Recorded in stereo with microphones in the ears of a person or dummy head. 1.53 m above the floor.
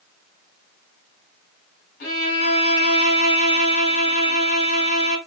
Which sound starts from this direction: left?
A violin, at 2.0 s.